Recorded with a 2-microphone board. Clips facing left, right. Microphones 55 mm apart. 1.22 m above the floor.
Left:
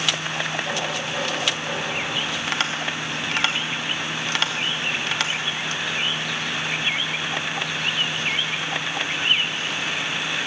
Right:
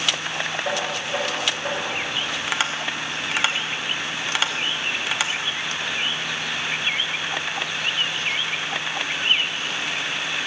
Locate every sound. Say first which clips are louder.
0.7 s knocking: right 1 dB; 35° right (ahead or behind), 4.5 m
2.5 s tapping: right 1 dB; 5° right (ahead or behind), 0.7 m